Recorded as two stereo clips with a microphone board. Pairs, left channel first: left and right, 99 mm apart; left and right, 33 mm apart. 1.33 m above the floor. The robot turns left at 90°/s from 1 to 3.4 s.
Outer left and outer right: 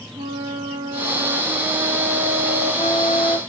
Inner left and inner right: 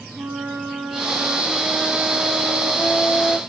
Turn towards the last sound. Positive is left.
turn(degrees=45)